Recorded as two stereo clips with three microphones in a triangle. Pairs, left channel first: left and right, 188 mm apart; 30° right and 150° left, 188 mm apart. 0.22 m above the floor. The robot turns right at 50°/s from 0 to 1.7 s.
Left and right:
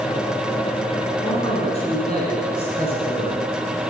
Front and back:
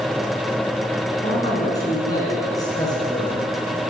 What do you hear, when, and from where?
1.2 s a man speaking: 15° left, 2.5 m; by 3.8 s 40° left, 2.5 m